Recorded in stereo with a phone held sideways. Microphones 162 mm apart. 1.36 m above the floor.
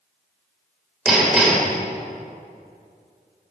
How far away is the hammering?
About 2 m.